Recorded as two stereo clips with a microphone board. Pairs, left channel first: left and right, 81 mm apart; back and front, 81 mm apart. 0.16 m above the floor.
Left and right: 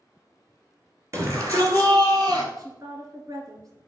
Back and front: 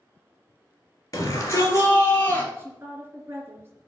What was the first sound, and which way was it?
A shout, 135° right.